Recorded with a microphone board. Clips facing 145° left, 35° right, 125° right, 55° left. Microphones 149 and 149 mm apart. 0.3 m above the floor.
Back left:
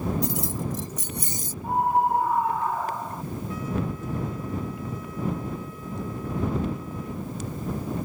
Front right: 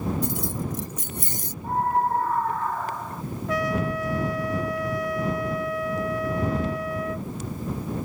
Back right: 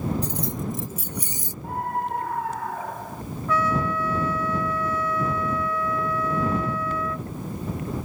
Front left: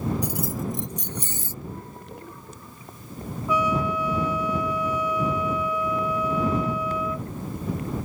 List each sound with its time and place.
0.2 s keys jangling: 20° right; by 1.5 s 55° right
1.6 s a scream: 135° right
3.5 s a trumpet: 20° right